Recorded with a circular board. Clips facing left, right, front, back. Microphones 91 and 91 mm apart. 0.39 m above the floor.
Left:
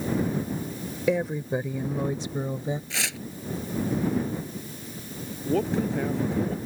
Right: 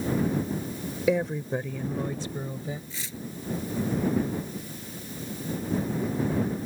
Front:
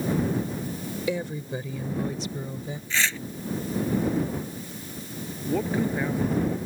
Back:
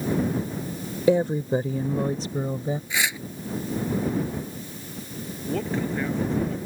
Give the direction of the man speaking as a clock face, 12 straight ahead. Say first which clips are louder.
Left 5 dB, front 2 dB; 9 o'clock.